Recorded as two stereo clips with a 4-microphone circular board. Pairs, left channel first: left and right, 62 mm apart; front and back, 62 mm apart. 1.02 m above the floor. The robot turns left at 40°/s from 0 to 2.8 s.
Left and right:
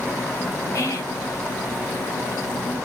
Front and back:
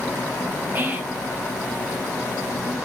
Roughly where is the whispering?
Behind left.